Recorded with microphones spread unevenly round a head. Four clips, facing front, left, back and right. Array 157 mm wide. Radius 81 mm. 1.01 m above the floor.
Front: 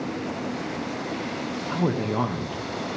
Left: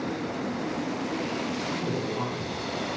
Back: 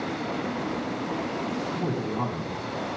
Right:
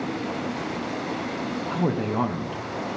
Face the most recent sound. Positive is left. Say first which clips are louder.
# right 4 dB, front 3 dB
turn(degrees=-45)